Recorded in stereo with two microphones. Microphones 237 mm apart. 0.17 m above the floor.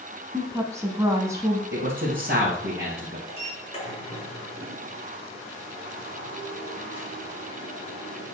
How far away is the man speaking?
About 2 m.